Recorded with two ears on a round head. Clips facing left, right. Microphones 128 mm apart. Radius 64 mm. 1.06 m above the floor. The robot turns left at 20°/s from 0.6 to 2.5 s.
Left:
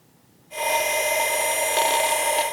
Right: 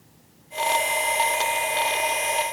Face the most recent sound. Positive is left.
No sound to turn to.